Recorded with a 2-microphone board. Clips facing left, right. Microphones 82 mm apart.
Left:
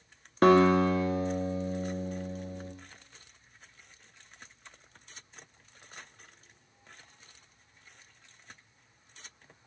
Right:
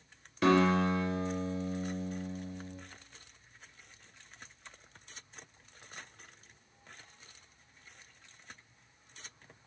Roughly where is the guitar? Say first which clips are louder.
Left 5 dB; left.